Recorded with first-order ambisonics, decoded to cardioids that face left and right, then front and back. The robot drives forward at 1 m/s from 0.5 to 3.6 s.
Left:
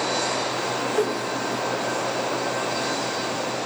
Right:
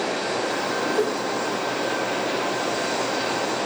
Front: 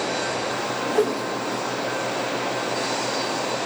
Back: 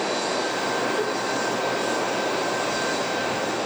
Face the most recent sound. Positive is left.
turn(degrees=170)